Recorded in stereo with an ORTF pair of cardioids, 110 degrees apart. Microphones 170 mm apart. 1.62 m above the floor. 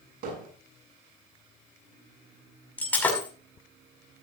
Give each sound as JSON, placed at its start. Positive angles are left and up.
{"t": 0.2, "sound": "hammering", "azimuth_deg": -65, "distance_m": 8.0}
{"t": 2.8, "sound": "breaking glass", "azimuth_deg": 10, "distance_m": 6.0}